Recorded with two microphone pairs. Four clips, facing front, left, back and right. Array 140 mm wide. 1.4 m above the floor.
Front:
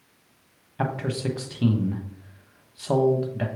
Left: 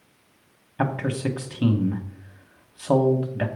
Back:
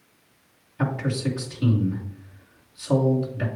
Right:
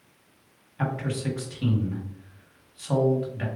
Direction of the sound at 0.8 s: 60° left.